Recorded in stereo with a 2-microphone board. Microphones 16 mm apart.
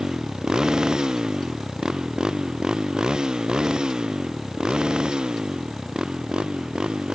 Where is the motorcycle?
45° right (ahead or behind); by 7.2 s 65° right (ahead or behind).